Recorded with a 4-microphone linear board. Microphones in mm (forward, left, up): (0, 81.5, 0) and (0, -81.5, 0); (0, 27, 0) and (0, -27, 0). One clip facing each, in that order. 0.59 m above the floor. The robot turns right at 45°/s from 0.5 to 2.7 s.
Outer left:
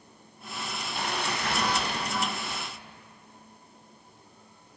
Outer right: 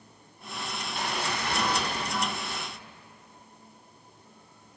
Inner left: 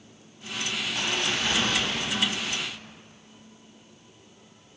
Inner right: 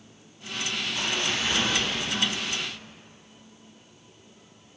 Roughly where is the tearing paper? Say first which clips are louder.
Even, inner left 1 dB; ahead left.